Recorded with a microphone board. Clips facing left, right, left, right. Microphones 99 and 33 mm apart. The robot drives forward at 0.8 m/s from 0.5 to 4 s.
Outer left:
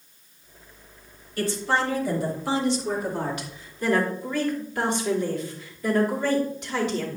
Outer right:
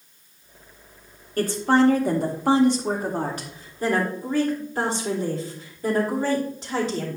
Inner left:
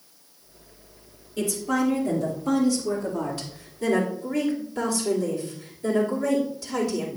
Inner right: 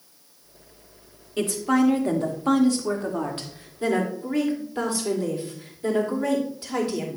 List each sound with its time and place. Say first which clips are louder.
1.4 s a woman speaking: outer right 6 dB, inner right 3 dB; 45° right (ahead or behind), 1.7 m; by 7.2 s 35° right (ahead or behind), 2 m